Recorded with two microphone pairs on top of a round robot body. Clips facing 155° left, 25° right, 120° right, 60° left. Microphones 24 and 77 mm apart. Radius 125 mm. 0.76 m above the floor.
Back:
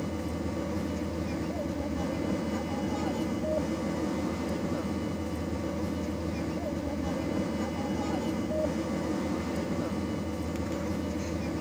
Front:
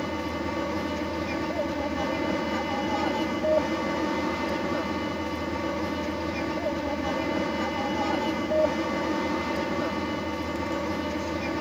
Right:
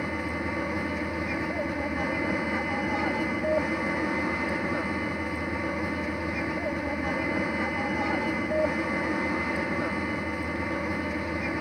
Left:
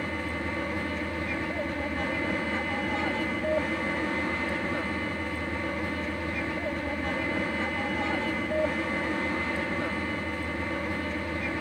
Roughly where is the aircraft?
Ahead right.